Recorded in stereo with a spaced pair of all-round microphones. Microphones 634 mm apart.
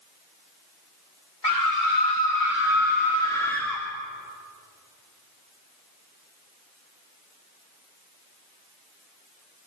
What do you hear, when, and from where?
1.4 s a scream: 60° left (ahead or behind), 2 m; by 3.8 s centre (ahead or behind), 4 m